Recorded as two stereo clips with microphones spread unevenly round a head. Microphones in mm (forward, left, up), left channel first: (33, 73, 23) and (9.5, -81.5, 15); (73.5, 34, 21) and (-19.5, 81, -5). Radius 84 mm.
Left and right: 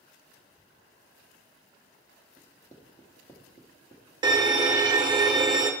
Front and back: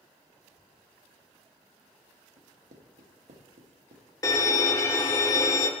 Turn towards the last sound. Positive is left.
turn(degrees=-90)